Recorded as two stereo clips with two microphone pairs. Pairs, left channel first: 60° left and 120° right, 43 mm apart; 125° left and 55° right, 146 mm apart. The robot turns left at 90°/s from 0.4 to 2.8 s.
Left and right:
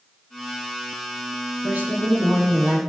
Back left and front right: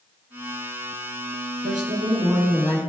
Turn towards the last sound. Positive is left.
turn(degrees=-170)